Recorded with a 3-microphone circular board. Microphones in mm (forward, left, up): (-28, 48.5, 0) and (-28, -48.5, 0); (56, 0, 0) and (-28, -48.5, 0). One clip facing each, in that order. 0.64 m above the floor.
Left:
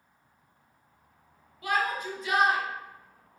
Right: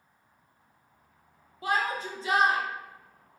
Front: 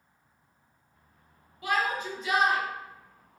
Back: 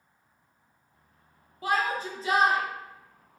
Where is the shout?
125° right, 0.6 m.